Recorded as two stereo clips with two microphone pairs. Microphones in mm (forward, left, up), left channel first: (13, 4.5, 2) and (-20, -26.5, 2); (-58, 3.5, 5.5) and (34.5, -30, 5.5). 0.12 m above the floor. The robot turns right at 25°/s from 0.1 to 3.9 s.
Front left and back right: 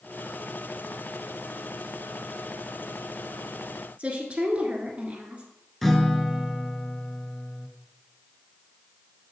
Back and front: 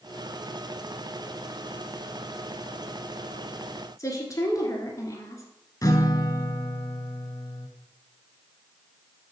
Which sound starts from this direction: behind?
A woman speaking, at 4.0 s.